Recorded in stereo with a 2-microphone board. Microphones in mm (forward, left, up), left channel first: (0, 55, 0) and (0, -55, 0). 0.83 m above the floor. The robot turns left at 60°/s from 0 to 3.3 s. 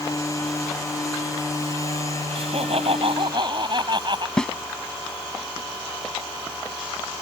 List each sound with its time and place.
2.4 s laughter: 75° right; by 4.3 s 130° right
4.4 s a snare drum: 5° left (ahead or behind)